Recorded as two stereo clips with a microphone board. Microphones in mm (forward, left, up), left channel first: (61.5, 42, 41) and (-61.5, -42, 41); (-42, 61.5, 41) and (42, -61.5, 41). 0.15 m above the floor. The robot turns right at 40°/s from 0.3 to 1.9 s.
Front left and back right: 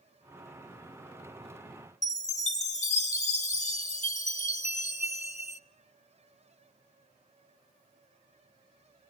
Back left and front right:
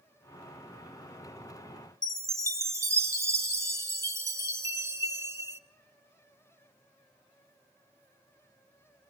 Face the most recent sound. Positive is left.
turn(degrees=10)